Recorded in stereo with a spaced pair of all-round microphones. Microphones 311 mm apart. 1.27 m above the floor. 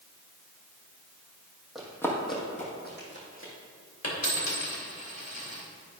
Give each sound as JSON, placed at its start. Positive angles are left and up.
{"t": 1.8, "sound": "running footsteps", "side_deg": 0, "distance_m": 2.0}
{"t": 4.0, "sound": "a dropped coin", "side_deg": 55, "distance_m": 2.5}